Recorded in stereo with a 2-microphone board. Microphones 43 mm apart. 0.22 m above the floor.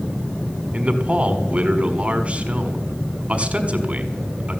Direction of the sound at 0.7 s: 30° right (ahead or behind).